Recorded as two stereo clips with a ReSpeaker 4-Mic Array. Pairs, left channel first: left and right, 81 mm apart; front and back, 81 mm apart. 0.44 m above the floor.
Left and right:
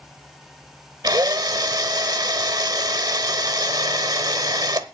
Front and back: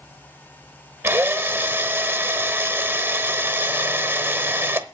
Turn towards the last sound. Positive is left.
turn(degrees=-120)